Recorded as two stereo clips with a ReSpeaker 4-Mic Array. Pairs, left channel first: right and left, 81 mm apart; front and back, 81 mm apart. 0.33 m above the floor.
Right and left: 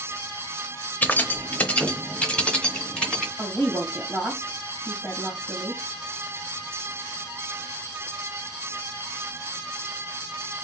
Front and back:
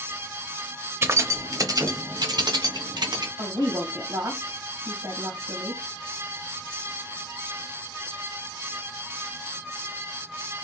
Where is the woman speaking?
170° right, 2 m.